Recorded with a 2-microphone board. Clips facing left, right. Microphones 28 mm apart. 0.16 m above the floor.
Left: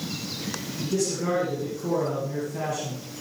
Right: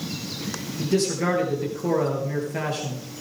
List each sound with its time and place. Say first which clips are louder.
0.8 s a man speaking: right 4 dB; 65° right (ahead or behind), 3.5 m